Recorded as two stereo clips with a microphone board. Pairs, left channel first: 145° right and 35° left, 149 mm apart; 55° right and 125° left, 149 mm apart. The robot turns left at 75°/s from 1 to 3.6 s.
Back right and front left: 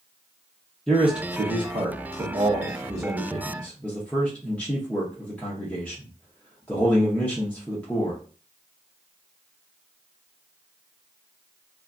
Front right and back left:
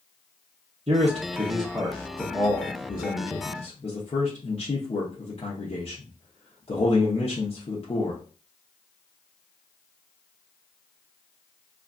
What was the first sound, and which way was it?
A man speaking, 125° left.